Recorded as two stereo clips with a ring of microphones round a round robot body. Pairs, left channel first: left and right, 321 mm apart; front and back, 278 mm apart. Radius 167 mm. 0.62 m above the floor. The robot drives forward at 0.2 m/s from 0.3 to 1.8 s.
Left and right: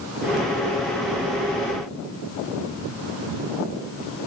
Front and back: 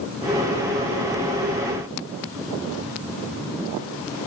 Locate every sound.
Only background noise.